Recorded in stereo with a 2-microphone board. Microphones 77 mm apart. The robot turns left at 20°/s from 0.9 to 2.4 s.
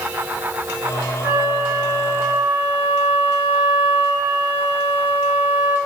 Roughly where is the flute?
Right.